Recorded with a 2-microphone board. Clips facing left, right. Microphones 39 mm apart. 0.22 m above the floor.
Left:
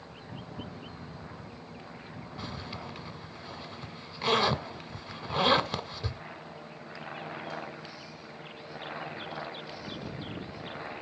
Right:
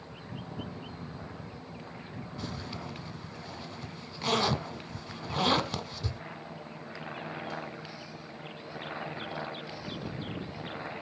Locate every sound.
2.4 s a zipper: 15° left (ahead or behind), 0.9 m